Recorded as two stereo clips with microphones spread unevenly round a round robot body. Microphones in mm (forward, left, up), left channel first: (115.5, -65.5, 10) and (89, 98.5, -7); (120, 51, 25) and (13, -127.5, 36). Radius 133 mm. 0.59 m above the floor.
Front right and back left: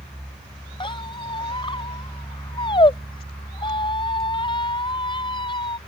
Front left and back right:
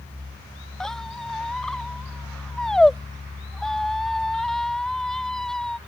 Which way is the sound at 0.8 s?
30° right.